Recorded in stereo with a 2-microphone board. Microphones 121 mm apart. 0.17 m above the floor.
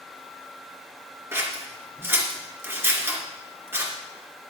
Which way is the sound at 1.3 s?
20° right (ahead or behind).